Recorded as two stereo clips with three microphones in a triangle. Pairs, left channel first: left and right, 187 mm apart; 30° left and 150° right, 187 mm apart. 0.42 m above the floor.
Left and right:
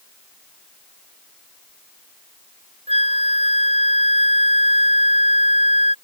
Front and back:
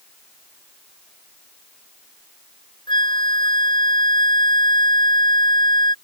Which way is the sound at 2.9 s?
35° right.